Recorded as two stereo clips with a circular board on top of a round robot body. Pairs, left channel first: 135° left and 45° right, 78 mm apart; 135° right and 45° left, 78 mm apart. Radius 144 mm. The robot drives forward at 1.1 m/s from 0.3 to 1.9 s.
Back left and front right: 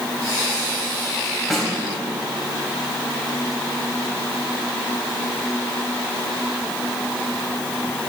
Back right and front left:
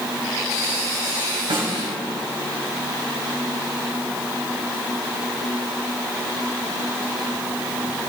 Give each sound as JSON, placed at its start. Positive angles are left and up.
{"t": 1.5, "sound": "a snare drum", "azimuth_deg": 45, "distance_m": 3.0}